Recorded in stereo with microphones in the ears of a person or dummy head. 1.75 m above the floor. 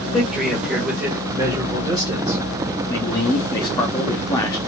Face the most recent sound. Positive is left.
turn(degrees=20)  # may be behind; listen again after turning